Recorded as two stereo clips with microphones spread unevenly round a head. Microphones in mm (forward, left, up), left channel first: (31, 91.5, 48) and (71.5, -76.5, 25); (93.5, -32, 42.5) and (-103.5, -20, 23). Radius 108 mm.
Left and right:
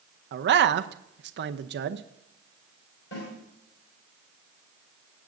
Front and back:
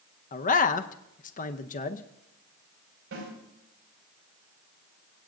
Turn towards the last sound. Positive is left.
turn(degrees=145)